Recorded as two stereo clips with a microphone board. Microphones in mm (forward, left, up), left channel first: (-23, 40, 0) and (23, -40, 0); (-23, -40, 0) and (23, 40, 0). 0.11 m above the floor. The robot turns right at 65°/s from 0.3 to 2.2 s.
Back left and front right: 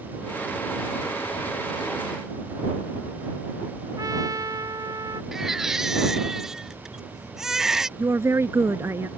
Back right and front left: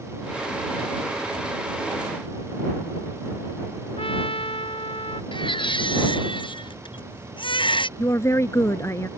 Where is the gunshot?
No gunshot in this recording.